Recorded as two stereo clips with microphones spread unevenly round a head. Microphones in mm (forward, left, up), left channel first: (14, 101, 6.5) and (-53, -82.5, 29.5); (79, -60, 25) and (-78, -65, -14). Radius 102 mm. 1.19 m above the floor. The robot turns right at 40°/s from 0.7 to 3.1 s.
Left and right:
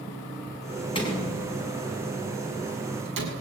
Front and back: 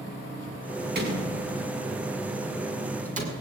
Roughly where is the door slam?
Behind left.